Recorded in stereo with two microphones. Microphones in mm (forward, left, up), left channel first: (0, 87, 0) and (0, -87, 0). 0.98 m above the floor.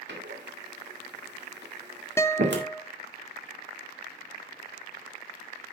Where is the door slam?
85° right, 2.0 m.